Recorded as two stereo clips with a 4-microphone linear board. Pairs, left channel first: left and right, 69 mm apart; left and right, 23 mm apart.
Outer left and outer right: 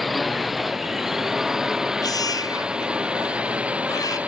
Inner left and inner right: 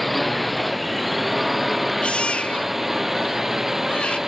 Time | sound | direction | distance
0.0 | a drone | centre (ahead or behind) | ?
2.0 | a baby crying | 65° left (ahead or behind) | ?